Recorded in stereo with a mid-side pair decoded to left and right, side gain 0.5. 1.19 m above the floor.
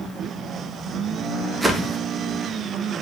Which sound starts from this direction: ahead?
A whoosh, at 1.6 s.